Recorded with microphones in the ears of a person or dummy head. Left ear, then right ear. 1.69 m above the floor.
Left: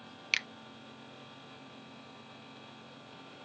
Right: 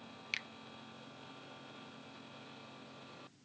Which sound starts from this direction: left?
A finger snap, at 0.3 s.